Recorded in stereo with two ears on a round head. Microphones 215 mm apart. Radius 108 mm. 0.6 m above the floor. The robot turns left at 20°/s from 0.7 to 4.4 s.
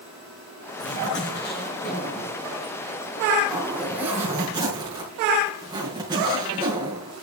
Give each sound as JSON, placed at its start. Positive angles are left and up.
{"t": 0.8, "sound": "a zipper", "azimuth_deg": 55, "distance_m": 5.5}